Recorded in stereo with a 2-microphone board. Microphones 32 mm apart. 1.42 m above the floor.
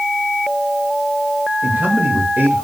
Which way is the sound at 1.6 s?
70° right (ahead or behind).